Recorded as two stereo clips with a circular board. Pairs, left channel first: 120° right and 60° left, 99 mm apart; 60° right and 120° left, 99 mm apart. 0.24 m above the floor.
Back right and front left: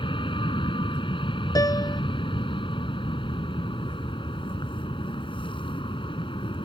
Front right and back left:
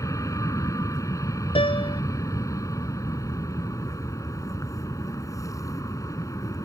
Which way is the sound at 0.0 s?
110° right.